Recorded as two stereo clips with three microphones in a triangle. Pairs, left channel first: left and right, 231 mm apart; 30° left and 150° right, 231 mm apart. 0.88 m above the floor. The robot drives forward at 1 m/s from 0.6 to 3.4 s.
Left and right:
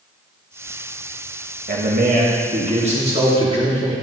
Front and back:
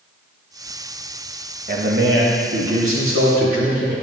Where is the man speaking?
115° right, 1.4 m; by 3.9 s 155° right, 2.5 m.